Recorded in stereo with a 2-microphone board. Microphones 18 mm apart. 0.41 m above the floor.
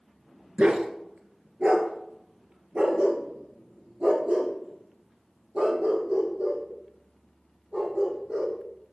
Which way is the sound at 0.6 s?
85° right.